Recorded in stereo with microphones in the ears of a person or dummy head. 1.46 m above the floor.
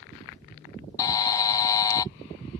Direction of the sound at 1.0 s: 20° left (ahead or behind).